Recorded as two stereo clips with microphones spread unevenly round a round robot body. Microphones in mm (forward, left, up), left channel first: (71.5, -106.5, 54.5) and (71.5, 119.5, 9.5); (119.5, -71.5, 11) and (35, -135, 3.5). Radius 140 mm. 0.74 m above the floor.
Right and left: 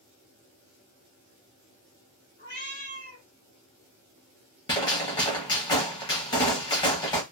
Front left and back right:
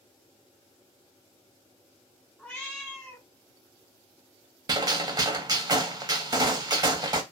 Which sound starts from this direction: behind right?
A gunshot, at 4.7 s.